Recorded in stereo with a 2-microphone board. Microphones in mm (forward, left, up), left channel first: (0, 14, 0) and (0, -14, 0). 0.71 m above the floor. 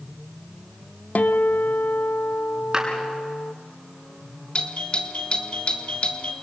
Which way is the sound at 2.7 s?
30° right (ahead or behind).